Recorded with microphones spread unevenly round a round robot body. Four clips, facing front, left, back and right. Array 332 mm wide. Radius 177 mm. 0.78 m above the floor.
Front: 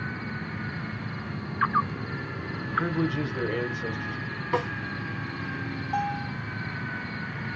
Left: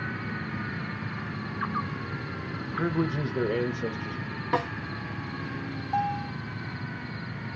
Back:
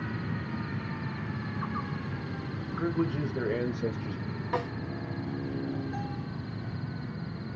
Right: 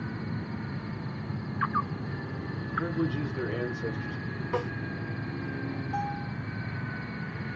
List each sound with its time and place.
2.6 s a man speaking: 55° left, 0.9 m; by 4.4 s 135° left, 1.1 m
4.5 s a snare drum: 70° left, 0.8 m
5.9 s a bell: 40° left, 0.9 m